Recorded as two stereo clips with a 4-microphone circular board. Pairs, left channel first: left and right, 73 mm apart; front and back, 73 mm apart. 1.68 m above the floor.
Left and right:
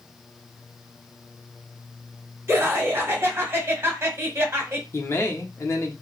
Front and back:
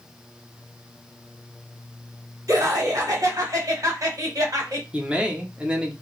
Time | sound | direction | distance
2.5 | laughter | 145° right | 1.2 m
4.9 | a man speaking | 110° left | 0.7 m